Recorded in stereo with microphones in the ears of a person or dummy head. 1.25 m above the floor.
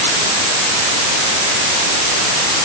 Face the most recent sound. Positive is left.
No sound to turn to.